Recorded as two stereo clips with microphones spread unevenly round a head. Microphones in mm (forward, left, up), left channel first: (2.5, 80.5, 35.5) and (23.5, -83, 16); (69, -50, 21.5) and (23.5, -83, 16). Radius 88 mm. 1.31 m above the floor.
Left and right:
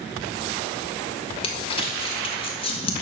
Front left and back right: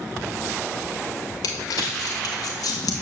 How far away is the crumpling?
About 2 m.